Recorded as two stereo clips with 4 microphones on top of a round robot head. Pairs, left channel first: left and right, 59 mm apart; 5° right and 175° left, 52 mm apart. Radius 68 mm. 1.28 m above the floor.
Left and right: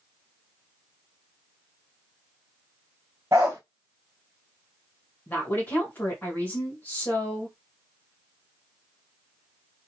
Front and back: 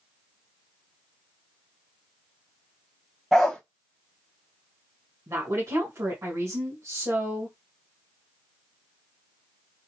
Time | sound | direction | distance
3.3 | a dog barking | 90° right | 0.8 m
5.3 | a woman speaking | 150° left | 2 m